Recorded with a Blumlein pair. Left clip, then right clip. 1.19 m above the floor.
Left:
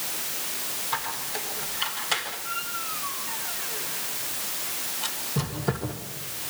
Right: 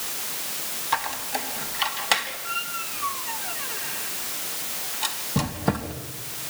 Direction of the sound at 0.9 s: 25° right.